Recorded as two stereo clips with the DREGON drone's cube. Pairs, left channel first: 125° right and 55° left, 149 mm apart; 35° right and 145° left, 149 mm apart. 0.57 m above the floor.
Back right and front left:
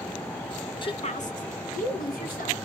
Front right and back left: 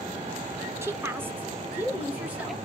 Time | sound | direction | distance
0.8 | a woman speaking | 155° right | 0.7 m